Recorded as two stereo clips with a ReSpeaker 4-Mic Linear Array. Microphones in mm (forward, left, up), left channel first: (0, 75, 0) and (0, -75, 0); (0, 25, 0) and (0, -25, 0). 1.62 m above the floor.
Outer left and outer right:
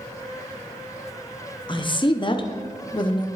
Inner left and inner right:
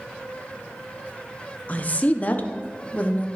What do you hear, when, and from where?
1.7 s a woman speaking: 35° left (ahead or behind), 0.6 m